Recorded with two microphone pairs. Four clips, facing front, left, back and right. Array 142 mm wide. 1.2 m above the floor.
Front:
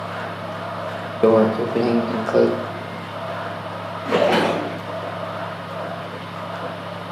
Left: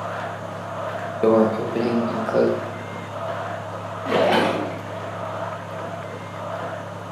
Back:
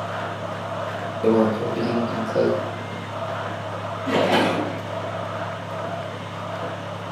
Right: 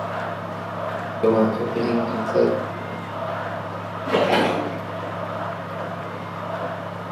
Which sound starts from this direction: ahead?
A microwave, at 1.2 s.